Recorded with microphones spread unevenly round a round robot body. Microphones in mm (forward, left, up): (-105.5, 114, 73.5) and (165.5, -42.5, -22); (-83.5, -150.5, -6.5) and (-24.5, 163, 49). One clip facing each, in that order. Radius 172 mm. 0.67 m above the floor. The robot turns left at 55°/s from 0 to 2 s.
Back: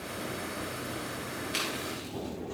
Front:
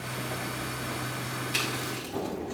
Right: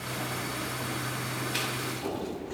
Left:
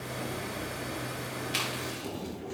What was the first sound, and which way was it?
Chewing, 45° left.